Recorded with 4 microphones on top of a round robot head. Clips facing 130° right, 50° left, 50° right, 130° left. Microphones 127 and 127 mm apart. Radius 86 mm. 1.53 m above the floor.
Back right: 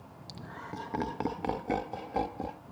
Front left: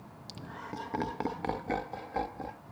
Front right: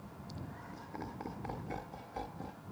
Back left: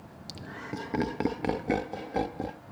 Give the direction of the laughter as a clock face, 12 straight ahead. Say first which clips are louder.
Even, back left 10 dB; 8 o'clock.